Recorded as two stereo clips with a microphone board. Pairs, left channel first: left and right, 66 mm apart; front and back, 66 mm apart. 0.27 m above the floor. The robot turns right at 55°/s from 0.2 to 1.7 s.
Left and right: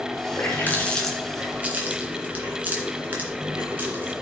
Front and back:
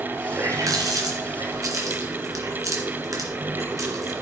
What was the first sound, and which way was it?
A running tap, 135° left.